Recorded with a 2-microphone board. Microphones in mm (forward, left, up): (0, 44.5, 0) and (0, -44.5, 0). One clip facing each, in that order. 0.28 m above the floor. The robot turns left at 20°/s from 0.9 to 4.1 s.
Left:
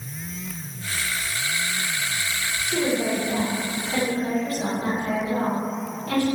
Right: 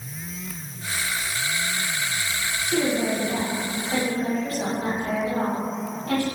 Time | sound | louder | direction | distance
2.7 | a woman speaking | even | 45° right (ahead or behind) | 1.8 m